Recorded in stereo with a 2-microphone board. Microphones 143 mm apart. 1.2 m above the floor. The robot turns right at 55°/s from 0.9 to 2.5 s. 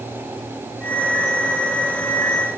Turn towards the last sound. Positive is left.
No sound to turn to.